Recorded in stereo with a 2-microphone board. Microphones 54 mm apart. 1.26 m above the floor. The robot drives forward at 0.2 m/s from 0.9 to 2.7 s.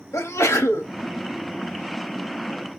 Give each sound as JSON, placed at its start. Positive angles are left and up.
{"t": 0.1, "sound": "a sneeze", "side_deg": 65, "distance_m": 1.2}